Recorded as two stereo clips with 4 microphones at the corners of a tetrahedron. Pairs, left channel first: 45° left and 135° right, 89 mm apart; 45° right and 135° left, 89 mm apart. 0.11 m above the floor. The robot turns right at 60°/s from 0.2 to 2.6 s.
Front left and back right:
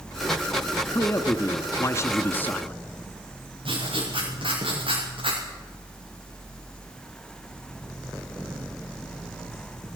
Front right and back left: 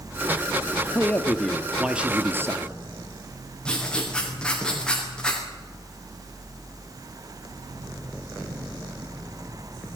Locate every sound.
0.9 s a man speaking: 5° left, 1.3 m; by 2.7 s 105° left, 1.3 m
3.6 s writing: 125° right, 8 m